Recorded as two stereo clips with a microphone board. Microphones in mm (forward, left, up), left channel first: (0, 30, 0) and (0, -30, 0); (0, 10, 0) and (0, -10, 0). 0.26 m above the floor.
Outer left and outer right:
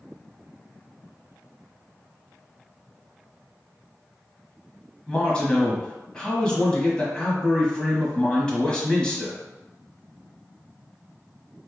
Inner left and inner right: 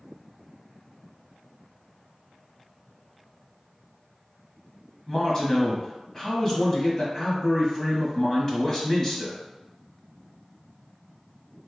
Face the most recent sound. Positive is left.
turn(degrees=15)  # may be behind; listen again after turning